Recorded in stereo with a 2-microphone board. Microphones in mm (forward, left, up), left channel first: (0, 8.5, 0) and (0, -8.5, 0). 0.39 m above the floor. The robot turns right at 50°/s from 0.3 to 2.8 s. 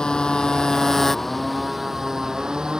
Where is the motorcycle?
115° left; by 2.8 s 120° right.